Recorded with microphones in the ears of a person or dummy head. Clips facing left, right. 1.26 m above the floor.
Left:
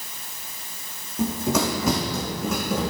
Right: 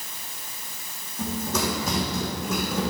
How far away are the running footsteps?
About 3 m.